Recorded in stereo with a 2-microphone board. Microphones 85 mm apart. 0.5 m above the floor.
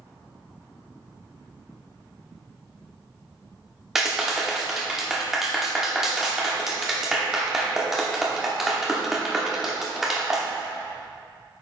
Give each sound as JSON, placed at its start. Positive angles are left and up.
{"t": 4.0, "sound": "a clap", "side_deg": -5, "distance_m": 1.0}